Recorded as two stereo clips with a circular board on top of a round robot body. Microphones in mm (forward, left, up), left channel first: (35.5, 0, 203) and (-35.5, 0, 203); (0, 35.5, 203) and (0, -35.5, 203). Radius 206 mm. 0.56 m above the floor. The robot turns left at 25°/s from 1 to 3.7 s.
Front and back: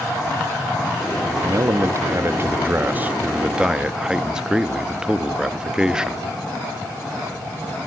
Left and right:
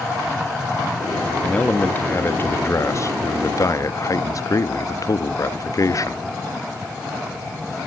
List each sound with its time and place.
1.4 s a man speaking: 160° left, 1.6 m; by 6.3 s 105° left, 1.6 m